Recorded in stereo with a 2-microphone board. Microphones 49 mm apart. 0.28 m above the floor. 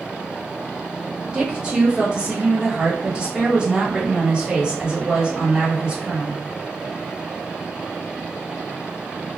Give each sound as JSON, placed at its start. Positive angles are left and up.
{"t": 1.3, "sound": "a woman speaking", "side_deg": -20, "distance_m": 1.4}